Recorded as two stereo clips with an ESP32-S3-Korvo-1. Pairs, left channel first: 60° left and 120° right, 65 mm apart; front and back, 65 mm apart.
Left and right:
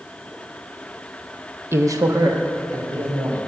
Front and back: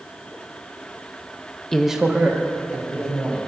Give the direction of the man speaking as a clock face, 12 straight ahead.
3 o'clock.